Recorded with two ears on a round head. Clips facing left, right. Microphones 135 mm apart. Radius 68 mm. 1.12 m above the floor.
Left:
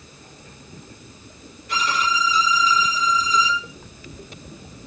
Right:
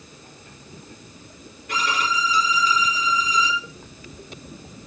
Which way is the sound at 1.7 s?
45° right (ahead or behind).